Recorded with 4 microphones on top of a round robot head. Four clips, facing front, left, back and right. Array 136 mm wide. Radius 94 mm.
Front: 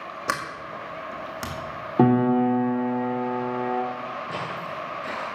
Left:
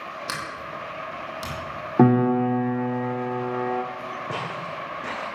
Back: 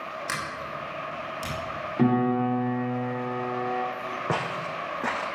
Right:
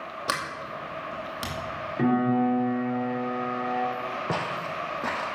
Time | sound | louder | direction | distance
0.3 | a sliding door | right 4 dB, front 6 dB | 25° right | 2.5 m
2.0 | a piano | left 5 dB, front 4 dB | 55° left | 2.5 m
4.3 | footsteps | right 1 dB, back 2 dB | 150° right | 3 m